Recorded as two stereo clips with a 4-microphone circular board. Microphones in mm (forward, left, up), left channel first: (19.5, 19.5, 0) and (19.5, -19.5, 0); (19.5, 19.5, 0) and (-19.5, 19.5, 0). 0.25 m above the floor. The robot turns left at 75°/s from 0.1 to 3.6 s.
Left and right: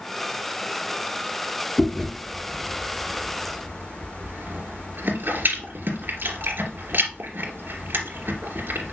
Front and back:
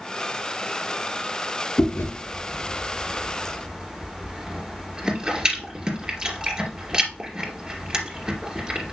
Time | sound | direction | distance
1.8 | chewing | 25° left | 2.5 m